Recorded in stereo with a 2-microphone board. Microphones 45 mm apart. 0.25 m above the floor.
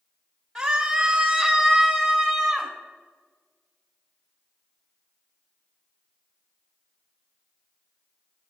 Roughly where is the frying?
I don't hear frying.